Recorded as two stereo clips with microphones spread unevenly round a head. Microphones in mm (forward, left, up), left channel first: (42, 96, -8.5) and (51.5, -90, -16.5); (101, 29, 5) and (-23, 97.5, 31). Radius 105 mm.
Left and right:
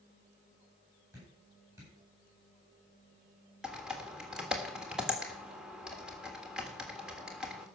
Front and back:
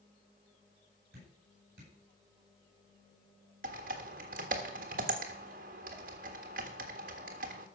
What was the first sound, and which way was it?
Dripping, 165° right.